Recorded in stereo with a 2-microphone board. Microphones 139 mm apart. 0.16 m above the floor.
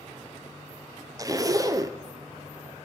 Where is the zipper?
25° right (ahead or behind), 0.9 m.